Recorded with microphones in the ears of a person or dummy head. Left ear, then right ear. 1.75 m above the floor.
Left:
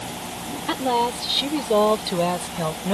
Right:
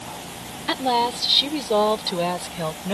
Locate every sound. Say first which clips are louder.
0.7 s a woman speaking: right 1 dB; 25° right (ahead or behind); by 3.0 s 10° right (ahead or behind)